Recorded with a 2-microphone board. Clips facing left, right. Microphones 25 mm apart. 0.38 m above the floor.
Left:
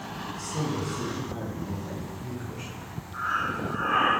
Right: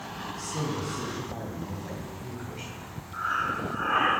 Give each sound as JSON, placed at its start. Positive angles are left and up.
{"t": 0.3, "sound": "a man speaking", "side_deg": -70, "distance_m": 3.5}
{"t": 3.1, "sound": "breathing", "side_deg": -15, "distance_m": 3.0}